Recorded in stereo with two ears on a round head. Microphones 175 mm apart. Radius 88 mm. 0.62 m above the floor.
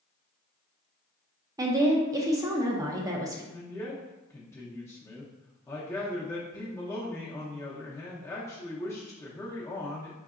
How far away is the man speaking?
About 0.7 m.